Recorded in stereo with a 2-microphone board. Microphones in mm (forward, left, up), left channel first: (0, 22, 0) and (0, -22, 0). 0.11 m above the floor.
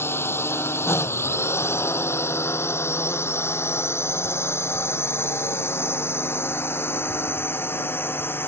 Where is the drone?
60° left (ahead or behind); by 8.5 s 55° left (ahead or behind).